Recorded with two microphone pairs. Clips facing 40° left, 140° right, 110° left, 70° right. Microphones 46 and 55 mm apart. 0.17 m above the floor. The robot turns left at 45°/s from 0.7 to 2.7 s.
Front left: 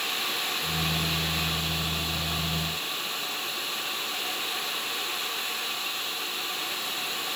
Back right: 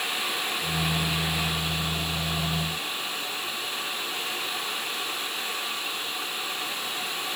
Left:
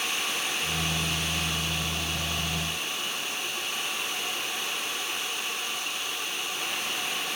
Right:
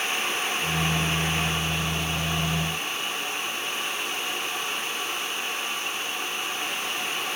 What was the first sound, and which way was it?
Only background noise.